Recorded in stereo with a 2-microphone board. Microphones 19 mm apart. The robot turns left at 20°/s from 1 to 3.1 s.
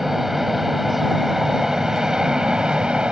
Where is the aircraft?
20° right; by 3.1 s 65° right.